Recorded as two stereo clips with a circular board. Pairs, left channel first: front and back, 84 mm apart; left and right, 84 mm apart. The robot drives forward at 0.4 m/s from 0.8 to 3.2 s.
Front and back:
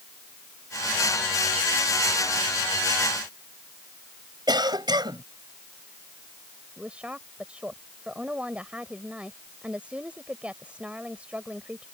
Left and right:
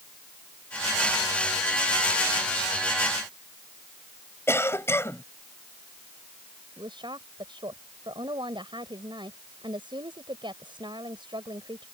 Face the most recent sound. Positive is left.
turn(degrees=-105)